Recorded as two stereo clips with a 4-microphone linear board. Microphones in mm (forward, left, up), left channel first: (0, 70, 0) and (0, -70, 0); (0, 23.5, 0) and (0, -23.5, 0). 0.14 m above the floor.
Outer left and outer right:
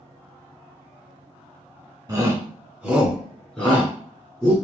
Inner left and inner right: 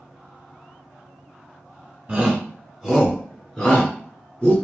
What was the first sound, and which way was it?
A shout, 25° right (ahead or behind).